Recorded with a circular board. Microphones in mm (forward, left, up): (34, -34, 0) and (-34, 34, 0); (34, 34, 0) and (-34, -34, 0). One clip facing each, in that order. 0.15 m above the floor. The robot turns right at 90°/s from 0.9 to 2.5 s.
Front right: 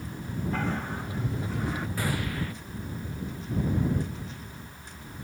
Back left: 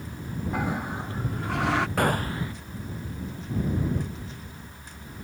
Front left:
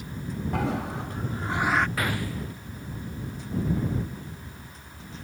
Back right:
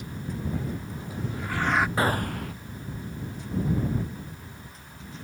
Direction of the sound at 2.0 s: 165° left.